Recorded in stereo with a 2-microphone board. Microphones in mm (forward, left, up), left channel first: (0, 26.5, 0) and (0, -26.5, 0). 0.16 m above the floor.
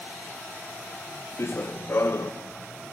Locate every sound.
1.4 s running footsteps: 50° left (ahead or behind), 0.9 m